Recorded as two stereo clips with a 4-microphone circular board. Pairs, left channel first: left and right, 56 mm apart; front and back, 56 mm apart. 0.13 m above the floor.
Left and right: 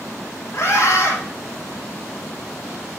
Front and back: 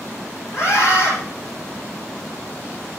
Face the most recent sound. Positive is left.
turn(degrees=45)